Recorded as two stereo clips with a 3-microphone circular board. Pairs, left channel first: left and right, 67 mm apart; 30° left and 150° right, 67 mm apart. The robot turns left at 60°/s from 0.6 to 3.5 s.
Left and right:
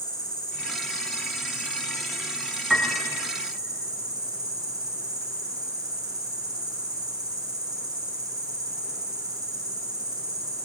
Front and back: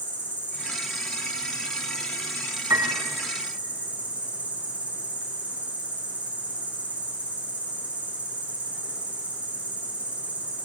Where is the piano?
175° right, 3 m; by 3.0 s 165° left, 3 m.